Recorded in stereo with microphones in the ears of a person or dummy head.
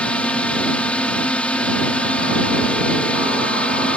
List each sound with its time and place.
0.0 s a drone: 5° left (ahead or behind)